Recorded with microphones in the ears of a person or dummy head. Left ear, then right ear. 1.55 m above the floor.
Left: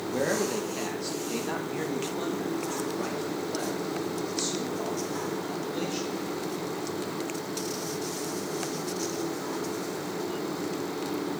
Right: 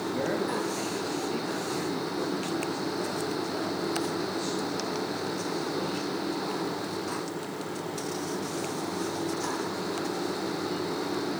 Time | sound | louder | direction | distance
0.1 | a man speaking | left 3 dB | 5° left (ahead or behind) | 1.2 m